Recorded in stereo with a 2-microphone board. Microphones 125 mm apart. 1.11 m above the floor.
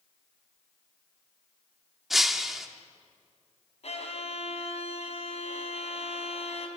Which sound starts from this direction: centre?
Breaking glass, at 2.1 s.